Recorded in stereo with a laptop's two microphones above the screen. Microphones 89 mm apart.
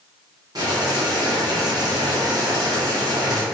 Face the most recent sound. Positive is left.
turn(degrees=-50)  # may be behind; listen again after turning